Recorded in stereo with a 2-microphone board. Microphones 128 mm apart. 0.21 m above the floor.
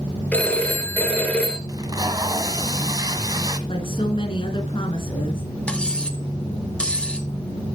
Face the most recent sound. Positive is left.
turn(degrees=10)  # may be behind; listen again after turning